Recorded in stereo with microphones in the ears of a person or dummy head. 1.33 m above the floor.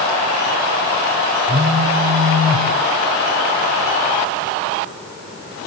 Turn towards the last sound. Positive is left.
turn(degrees=-30)  # may be behind; listen again after turning